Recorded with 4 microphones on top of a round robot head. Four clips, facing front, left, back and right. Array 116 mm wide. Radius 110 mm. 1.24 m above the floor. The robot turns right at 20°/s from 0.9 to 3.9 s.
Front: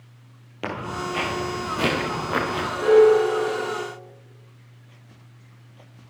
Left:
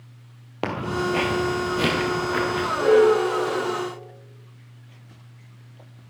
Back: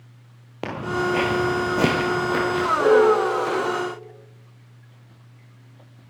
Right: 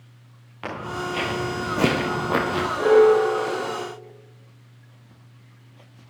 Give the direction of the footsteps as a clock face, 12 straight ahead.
8 o'clock.